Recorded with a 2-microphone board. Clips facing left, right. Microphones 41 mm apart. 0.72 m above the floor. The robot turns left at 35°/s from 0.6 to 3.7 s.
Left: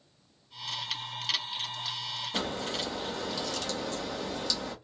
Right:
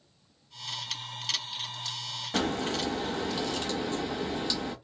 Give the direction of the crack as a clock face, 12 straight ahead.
3 o'clock.